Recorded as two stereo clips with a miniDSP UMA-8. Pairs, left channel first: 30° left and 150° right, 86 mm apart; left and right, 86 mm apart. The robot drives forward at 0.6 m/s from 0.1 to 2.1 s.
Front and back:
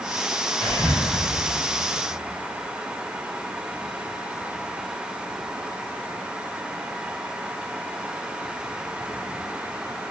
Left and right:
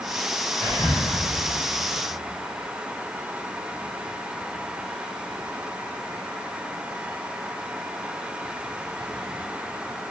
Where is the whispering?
155° left, 1.8 m; by 1.0 s 160° left, 1.9 m.